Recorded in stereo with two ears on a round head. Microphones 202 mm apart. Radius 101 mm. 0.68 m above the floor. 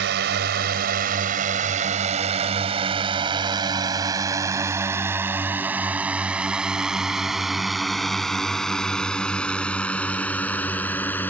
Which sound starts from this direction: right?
A drone, at 0.0 s.